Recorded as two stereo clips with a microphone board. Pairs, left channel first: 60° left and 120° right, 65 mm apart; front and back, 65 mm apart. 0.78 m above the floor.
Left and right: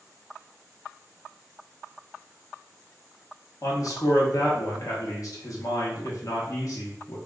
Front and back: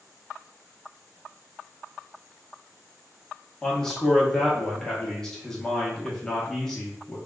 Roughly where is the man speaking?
Left.